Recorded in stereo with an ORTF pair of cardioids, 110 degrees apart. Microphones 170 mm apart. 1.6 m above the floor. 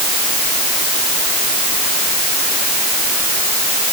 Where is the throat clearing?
No throat clearing in this recording.